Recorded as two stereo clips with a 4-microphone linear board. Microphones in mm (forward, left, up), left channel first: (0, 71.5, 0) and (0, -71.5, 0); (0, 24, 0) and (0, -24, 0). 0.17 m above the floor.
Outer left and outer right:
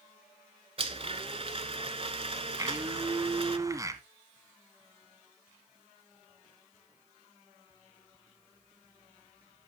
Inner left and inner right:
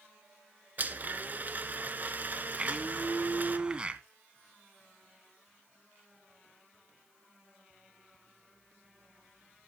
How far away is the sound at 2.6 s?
About 1.3 m.